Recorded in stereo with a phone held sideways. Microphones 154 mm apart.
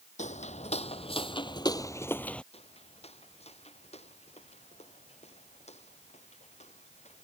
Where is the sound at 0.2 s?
50° left (ahead or behind); by 2.4 s 5° left (ahead or behind).